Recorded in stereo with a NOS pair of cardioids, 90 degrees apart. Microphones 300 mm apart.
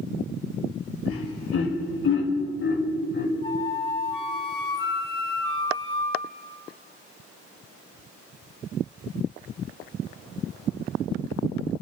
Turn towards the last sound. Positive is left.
turn(degrees=20)